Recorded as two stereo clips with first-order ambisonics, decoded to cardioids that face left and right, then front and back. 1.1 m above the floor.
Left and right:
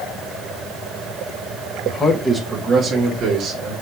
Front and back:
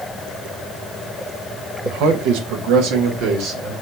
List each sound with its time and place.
1.9 s a man speaking: 155° left, 0.9 m; by 3.7 s 145° right, 1.6 m